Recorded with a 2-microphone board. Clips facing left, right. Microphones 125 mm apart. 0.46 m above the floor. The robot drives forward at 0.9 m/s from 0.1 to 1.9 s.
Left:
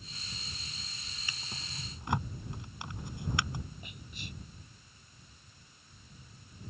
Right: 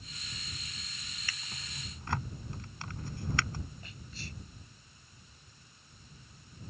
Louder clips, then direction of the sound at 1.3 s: Left 2 dB; 20° left (ahead or behind).